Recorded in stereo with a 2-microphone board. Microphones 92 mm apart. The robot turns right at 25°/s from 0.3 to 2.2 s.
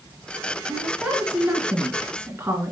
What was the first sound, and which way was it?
A woman speaking, straight behind.